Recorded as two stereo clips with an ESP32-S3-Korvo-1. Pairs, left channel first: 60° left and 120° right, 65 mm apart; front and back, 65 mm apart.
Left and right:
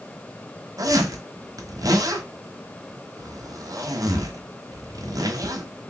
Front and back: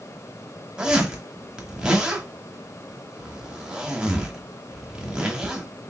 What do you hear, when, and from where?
0.8 s a zipper: 105° right, 1.0 m